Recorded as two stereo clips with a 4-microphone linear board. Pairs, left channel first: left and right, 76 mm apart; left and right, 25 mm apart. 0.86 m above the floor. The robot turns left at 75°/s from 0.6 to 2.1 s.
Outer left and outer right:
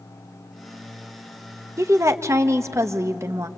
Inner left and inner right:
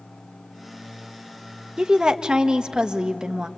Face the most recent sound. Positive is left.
turn(degrees=-40)  # may be behind; listen again after turning